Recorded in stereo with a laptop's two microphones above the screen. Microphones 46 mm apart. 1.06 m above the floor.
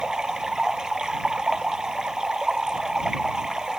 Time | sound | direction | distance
0.0 | running water | 15° right (ahead or behind) | ?